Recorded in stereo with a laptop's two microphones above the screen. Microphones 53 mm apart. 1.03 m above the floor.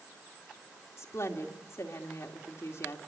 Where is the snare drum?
No snare drum in this recording.